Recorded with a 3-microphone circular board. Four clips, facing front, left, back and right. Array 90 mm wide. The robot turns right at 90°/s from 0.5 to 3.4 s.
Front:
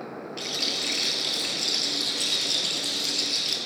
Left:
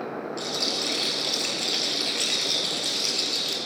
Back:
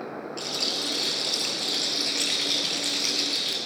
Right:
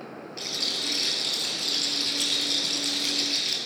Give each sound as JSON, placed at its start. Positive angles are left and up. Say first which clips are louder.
{"t": 0.4, "sound": "a rattle", "louder": "left 6 dB, back 1 dB", "azimuth_deg": -20, "distance_m": 1.2}